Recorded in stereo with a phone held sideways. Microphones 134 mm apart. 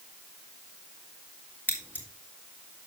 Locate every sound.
1.7 s scissors: 10° left (ahead or behind), 2.5 m